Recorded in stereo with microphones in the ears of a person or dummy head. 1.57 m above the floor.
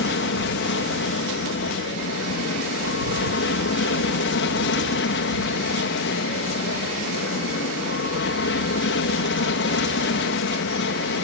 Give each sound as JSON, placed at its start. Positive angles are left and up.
{"t": 0.0, "sound": "an aircraft", "side_deg": 55}